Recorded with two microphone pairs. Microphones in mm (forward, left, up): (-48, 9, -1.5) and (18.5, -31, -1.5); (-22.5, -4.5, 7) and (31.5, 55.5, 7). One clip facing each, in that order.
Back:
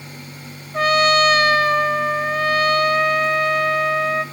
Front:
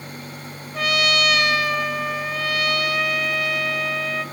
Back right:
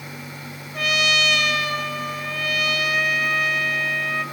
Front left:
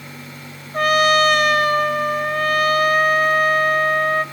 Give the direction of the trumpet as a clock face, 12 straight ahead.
9 o'clock.